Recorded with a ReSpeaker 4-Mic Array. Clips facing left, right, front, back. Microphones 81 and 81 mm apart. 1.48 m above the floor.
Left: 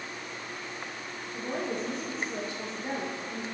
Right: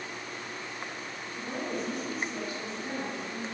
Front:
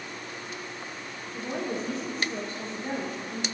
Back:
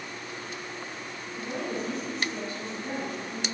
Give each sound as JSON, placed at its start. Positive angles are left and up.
{"t": 1.3, "sound": "a woman speaking", "azimuth_deg": 35, "distance_m": 5.5}